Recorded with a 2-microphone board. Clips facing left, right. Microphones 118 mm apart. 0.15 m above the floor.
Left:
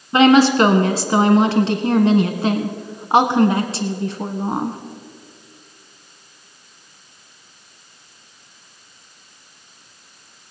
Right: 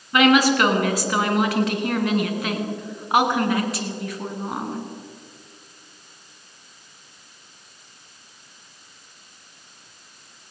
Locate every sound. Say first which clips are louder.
0.1 s a woman speaking: left 5 dB; 30° left (ahead or behind), 1.2 m